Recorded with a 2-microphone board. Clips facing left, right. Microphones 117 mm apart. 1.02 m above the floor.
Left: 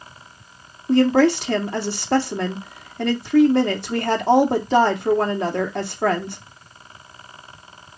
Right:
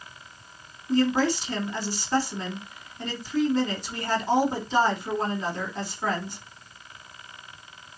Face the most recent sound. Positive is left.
turn(degrees=70)  # may be behind; listen again after turning